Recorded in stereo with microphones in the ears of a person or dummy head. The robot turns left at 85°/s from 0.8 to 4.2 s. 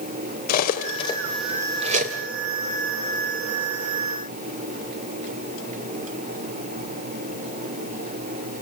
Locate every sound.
0.5 s cutlery clinking: 55° left (ahead or behind), 2.5 m; by 2.2 s 60° right (ahead or behind), 2.5 m